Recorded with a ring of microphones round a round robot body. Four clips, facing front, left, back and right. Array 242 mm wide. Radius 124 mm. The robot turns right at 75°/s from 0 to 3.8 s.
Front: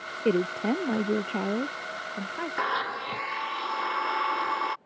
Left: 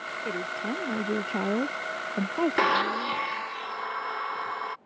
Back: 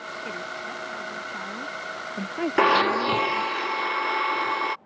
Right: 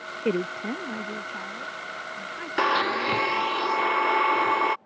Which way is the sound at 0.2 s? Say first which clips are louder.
Right 6 dB, front 13 dB; 40° right.